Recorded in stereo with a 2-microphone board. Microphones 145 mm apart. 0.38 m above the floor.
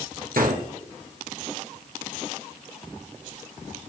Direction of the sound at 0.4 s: 85° right.